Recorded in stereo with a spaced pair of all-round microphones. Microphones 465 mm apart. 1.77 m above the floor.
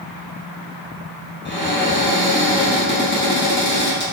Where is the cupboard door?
20° left (ahead or behind), 1.2 m.